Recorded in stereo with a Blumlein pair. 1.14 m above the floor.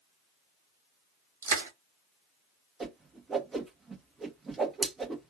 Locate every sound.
1.4 s crushing: 65° right, 1.2 m
2.8 s a whoosh: 15° right, 0.8 m